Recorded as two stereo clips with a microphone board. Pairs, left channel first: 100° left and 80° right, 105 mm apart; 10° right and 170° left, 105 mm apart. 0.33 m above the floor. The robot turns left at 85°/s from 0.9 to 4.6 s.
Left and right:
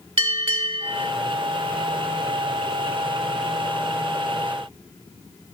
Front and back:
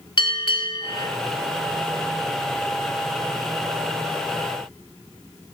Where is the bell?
45° right, 0.7 m; by 1.1 s 60° right, 0.7 m.